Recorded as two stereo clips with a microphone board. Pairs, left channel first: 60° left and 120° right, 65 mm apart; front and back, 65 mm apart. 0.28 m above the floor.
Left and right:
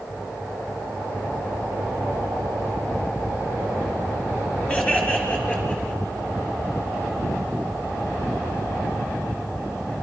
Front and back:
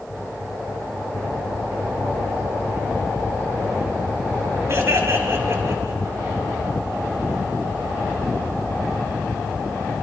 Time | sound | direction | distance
4.7 | laughter | 130° left | 4.5 m